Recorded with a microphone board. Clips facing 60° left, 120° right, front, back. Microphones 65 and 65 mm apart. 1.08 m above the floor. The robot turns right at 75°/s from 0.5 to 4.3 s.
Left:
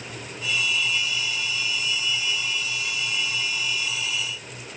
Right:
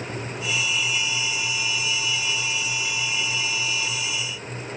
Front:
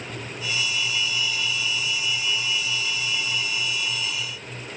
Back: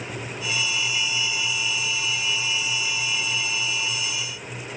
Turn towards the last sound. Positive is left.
No sound to turn to.